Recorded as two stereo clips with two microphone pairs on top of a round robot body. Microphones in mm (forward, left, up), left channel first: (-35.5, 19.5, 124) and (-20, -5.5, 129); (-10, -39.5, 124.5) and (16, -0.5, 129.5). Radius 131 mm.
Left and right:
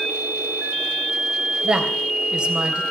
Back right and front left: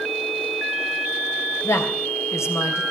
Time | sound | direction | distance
1.6 | a woman speaking | 120° right | 3.5 m